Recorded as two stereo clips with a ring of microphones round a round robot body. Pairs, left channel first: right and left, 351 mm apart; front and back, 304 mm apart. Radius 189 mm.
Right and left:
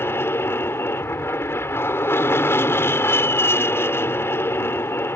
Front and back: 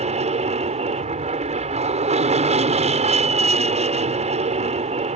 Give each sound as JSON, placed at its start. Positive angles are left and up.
{"t": 0.0, "sound": "an aircraft", "azimuth_deg": -160}